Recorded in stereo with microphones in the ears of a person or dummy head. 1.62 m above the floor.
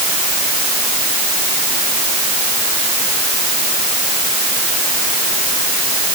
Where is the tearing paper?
No tearing paper in this recording.